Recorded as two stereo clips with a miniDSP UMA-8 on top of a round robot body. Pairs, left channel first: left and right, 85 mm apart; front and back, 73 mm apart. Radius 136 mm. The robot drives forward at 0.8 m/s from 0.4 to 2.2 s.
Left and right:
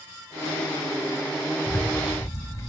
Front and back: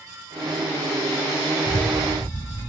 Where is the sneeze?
No sneeze in this recording.